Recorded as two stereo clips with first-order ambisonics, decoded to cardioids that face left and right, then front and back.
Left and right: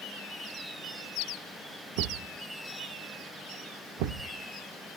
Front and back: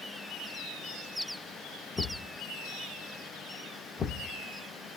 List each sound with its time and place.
2.0 s a thud: 70° right, 0.7 m